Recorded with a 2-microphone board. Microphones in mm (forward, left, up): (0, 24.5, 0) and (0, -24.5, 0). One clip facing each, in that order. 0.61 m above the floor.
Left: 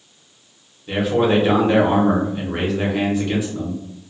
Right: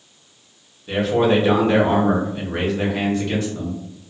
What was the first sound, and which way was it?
A man speaking, 5° left (ahead or behind).